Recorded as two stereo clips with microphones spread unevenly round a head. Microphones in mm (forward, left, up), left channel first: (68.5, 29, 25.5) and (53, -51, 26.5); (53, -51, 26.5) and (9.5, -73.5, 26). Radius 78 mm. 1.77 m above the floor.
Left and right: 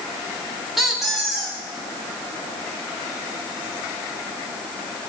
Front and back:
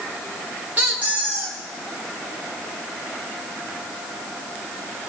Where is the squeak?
175° left, 0.9 m.